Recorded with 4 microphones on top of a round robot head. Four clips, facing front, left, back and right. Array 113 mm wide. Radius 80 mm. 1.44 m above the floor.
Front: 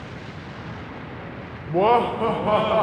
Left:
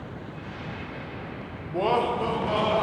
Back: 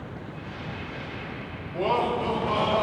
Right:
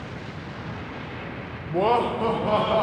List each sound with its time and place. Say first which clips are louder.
1.7 s laughter: right 3 dB, front 7 dB; 15° right, 0.7 m; by 2.8 s 25° right, 1.4 m